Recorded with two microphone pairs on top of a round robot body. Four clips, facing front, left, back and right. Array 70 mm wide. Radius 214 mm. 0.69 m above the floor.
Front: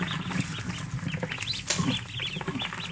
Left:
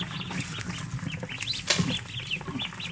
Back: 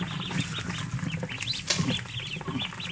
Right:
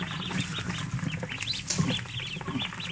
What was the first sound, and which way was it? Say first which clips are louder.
Crushing: left 2 dB, front 1 dB; 95° left.